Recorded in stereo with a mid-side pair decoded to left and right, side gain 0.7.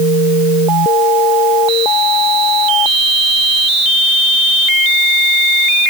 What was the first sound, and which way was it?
Only background noise.